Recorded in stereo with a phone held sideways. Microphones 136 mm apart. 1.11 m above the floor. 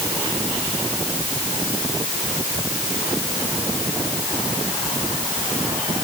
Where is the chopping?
I don't hear chopping.